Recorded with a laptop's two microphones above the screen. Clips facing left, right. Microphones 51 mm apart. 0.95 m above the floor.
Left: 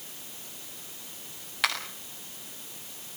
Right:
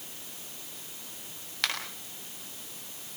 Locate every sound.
1.6 s a finger snap: 10° left (ahead or behind), 7 m